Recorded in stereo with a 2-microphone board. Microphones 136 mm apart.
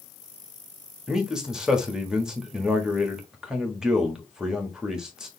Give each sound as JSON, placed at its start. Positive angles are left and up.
{"t": 1.1, "sound": "a man speaking", "side_deg": -5, "distance_m": 1.4}